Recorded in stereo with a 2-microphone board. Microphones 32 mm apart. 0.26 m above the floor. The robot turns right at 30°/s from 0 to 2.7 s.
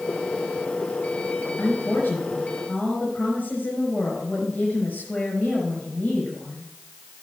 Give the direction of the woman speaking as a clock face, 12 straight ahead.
9 o'clock.